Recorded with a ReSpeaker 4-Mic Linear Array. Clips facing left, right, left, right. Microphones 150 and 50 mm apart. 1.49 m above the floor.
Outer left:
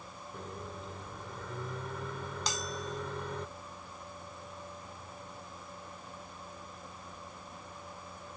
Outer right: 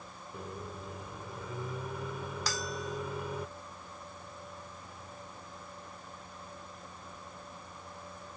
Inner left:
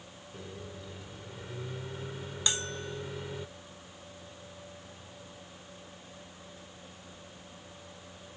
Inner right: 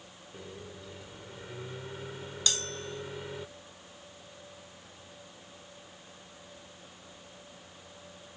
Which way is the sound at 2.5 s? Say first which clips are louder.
Outer right 1 dB, even; 20° left (ahead or behind).